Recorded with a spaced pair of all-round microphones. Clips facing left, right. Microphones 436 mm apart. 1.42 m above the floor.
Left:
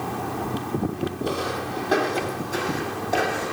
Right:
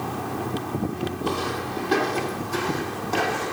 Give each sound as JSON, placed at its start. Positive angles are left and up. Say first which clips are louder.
{"t": 1.2, "sound": "footsteps", "louder": "even", "side_deg": -10, "distance_m": 3.0}